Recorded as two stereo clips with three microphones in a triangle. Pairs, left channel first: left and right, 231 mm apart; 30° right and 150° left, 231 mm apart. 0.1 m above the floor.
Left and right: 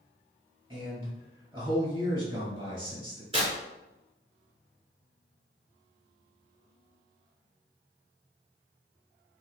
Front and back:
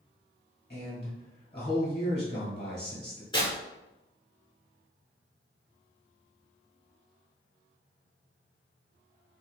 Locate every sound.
0.7 s a man speaking: 35° right, 1.6 m
3.3 s tearing paper: 65° right, 1.4 m